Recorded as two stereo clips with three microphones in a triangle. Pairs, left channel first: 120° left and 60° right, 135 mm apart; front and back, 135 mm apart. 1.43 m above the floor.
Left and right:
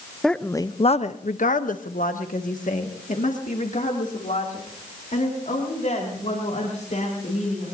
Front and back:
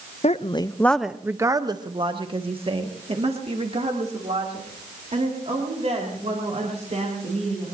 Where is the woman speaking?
30° left, 0.6 m; by 7.7 s 145° left, 5.5 m.